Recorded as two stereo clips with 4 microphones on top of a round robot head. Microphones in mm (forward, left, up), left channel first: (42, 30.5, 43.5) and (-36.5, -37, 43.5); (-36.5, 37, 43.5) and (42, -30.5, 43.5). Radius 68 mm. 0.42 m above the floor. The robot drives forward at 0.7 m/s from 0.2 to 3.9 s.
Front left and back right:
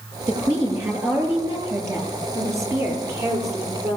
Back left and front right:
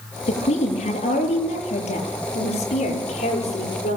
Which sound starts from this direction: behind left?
A woman speaking, at 0.3 s.